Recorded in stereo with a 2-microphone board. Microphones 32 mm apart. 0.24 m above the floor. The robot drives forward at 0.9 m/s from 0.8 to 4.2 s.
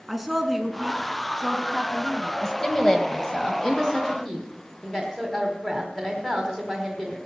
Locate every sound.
0.1 s a woman speaking: 5° right (ahead or behind), 2.5 m; by 2.3 s 10° right (ahead or behind), 1.3 m
2.4 s a woman speaking: 15° left (ahead or behind), 1.3 m; by 7.2 s 10° left (ahead or behind), 1.7 m